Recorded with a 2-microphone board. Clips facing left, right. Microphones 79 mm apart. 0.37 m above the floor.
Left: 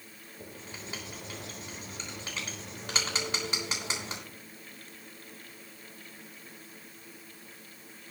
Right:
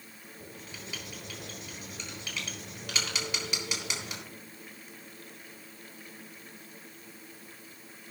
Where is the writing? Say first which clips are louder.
Left 2 dB; 35° left (ahead or behind), 3.5 m.